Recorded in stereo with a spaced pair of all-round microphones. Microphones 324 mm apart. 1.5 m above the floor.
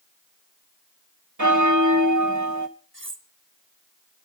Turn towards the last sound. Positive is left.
turn(degrees=-40)  # may be behind; listen again after turning